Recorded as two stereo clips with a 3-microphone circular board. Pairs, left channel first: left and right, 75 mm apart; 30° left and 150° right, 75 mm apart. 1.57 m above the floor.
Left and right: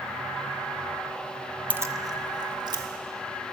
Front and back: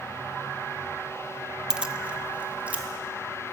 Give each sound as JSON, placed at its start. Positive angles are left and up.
{"t": 1.7, "sound": "keys jangling", "azimuth_deg": -85, "distance_m": 0.7}